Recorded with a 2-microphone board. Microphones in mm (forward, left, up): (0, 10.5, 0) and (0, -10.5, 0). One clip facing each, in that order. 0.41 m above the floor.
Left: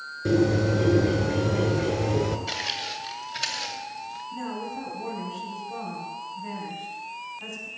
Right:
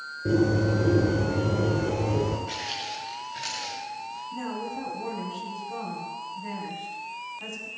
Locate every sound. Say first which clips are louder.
0.2 s a bird: left 1 dB; 85° left, 1.9 m
2.5 s footsteps: left 3 dB; 80° left, 4 m; by 4.2 s 45° left (ahead or behind), 3.5 m
4.3 s a woman speaking: even; 5° right (ahead or behind), 4 m